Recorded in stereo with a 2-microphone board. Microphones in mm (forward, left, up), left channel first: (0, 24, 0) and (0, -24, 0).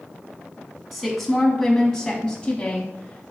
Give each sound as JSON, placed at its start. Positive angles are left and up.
{"t": 0.9, "sound": "a woman speaking", "side_deg": -5, "distance_m": 1.3}